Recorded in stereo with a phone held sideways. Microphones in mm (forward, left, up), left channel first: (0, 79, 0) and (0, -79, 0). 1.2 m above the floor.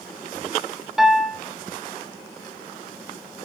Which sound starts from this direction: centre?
A piano, at 1.0 s.